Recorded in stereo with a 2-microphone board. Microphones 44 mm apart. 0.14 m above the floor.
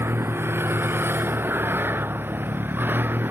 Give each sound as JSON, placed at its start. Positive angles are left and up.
{"t": 0.0, "sound": "a vehicle", "side_deg": -70}